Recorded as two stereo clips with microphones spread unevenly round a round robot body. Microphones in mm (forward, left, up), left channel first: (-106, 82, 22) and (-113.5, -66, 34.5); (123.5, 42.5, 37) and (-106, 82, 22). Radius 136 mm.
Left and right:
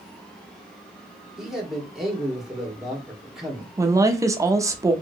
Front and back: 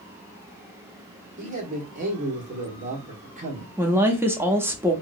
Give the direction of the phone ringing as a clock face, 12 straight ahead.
I don't hear a phone ringing.